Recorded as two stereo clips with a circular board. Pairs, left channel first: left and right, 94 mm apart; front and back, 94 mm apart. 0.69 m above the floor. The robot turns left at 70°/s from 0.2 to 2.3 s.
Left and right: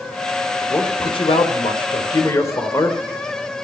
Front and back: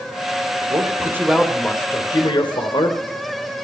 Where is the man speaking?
150° left, 3 m; by 3.0 s 30° left, 3 m.